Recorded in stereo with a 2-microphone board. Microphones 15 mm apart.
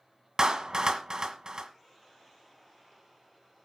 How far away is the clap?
About 1.7 m.